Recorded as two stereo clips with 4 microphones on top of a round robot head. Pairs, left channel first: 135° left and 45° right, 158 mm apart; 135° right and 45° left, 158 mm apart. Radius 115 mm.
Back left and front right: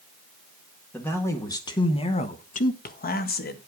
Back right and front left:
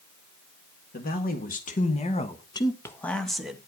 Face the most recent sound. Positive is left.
turn(degrees=130)